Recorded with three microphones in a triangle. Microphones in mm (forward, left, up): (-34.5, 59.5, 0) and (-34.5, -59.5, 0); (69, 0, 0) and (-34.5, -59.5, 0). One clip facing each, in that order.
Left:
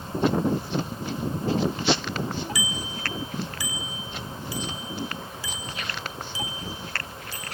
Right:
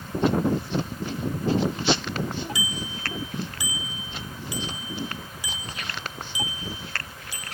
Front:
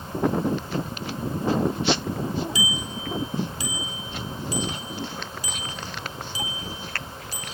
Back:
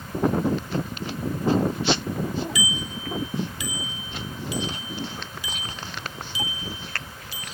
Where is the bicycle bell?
25° right, 3 m; by 7.5 s 15° right, 6.5 m.